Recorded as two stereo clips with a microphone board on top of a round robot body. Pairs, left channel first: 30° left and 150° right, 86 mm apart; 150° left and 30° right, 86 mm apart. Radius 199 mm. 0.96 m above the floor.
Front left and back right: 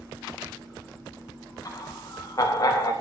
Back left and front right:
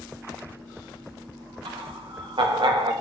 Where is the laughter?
15° right, 2.5 m.